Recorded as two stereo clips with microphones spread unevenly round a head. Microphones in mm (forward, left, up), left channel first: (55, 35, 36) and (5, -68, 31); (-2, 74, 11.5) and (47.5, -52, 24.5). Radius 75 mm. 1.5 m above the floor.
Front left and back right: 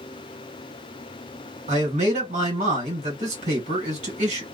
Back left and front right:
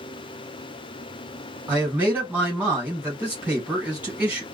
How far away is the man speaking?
About 1.9 m.